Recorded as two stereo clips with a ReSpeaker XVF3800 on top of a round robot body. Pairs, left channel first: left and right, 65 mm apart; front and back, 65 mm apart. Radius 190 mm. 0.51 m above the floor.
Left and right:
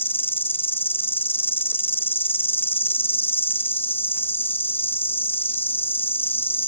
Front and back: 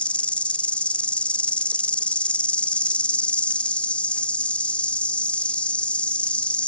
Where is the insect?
60° left, 0.8 m.